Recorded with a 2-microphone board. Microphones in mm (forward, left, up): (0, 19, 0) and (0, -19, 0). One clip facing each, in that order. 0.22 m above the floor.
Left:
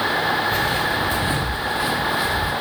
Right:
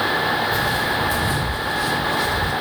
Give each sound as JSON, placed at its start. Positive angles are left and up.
{"t": 0.5, "sound": "footsteps", "side_deg": 45, "distance_m": 1.7}